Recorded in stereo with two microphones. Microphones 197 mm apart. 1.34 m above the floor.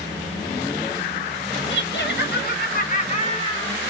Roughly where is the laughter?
Left.